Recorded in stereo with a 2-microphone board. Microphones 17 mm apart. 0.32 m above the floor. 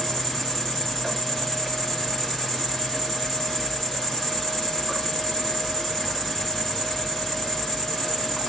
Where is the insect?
30° left (ahead or behind), 2.0 m.